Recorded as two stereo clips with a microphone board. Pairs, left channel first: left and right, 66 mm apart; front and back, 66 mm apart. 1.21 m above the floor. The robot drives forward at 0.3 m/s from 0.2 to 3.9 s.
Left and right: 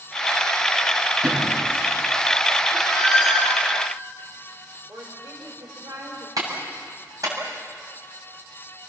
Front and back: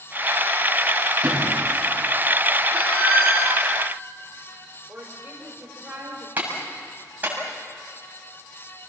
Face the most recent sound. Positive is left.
turn(degrees=-115)